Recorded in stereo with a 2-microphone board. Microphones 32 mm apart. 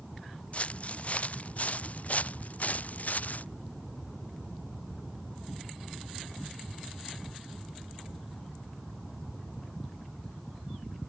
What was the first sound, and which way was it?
Footsteps, 45° left (ahead or behind).